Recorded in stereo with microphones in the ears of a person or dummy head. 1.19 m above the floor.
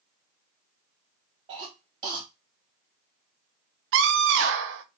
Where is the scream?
75° right (ahead or behind), 0.7 m.